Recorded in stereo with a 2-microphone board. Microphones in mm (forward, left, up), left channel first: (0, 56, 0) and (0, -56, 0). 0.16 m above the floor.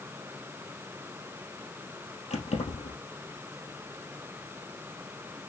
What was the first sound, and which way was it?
Keys jangling, 75° left (ahead or behind).